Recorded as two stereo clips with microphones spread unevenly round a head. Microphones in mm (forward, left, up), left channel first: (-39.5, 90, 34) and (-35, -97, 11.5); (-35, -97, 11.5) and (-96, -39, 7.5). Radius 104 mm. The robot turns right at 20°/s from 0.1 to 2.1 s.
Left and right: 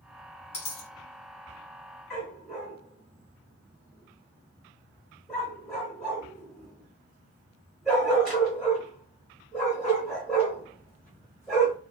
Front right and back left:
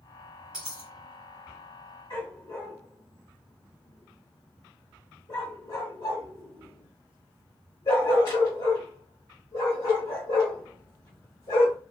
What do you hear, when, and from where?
0.5 s a dropped coin: 55° left, 1.0 m; by 0.9 s 60° left, 1.0 m
2.1 s a dog barking: 5° left, 1.3 m